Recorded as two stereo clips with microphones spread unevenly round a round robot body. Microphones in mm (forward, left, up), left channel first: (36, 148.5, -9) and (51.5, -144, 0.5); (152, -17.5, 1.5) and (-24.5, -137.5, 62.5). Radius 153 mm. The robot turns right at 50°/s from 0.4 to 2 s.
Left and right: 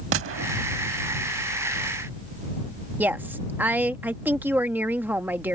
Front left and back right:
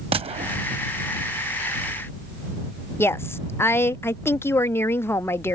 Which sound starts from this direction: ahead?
A woman speaking, at 3.0 s.